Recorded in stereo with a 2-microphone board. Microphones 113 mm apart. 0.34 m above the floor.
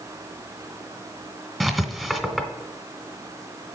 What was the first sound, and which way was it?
Writing, centre (ahead or behind).